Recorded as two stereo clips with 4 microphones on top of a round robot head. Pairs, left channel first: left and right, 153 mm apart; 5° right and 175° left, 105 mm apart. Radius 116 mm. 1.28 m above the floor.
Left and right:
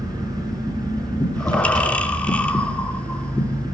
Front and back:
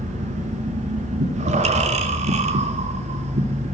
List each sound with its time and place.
0.0 s an engine running: 155° right, 6 m
1.2 s breathing: 170° left, 2.5 m